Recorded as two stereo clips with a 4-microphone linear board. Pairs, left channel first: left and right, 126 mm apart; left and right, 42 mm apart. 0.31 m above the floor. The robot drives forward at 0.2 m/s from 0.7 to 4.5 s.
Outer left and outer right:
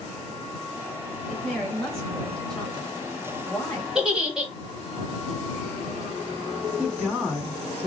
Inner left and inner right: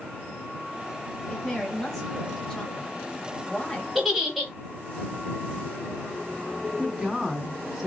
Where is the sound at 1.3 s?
5° left (ahead or behind), 1.4 m.